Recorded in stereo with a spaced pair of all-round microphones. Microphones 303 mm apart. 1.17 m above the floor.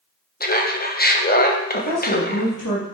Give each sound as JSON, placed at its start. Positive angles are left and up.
{"t": 0.4, "sound": "laughter", "side_deg": 30, "distance_m": 1.0}
{"t": 1.7, "sound": "a woman speaking", "side_deg": 85, "distance_m": 1.3}